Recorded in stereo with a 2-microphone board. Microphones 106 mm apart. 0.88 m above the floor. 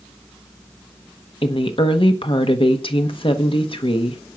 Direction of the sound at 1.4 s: 55° left (ahead or behind).